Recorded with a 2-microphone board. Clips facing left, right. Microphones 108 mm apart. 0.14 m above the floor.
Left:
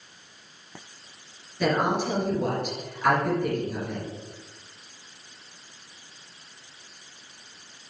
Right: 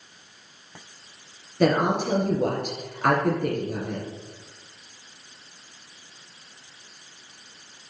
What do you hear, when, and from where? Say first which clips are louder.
1.6 s a woman speaking: right 3 dB; 55° right (ahead or behind), 2 m